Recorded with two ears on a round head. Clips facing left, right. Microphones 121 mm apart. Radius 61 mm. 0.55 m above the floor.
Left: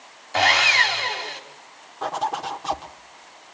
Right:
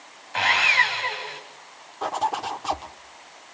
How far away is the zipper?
About 1.5 m.